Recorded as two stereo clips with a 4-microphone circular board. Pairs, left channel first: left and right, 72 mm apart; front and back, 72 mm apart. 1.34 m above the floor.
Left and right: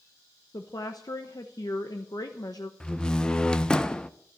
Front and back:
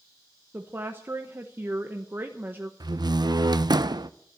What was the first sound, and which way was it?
A woman speaking, 120° left.